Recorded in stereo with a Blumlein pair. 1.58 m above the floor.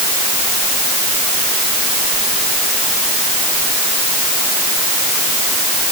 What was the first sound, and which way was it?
Only background noise.